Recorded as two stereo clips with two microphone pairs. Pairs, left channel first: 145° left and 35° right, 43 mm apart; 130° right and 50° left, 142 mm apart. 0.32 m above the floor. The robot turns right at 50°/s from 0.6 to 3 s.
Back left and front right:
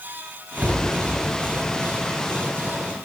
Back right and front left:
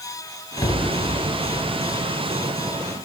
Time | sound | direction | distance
0.6 | a cupboard door | 65° right | 0.7 m